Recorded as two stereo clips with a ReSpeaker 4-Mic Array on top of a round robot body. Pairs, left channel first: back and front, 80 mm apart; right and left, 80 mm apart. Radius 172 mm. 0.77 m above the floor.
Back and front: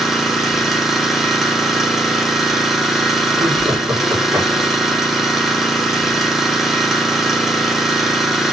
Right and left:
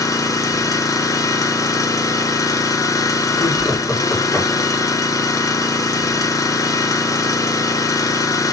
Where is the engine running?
85° right, 0.8 m.